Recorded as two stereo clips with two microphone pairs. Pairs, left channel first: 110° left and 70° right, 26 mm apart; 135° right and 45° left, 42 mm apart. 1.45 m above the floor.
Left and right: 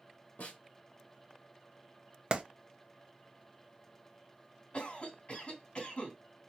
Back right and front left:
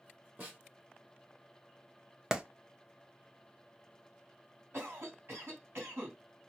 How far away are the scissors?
No scissors in this recording.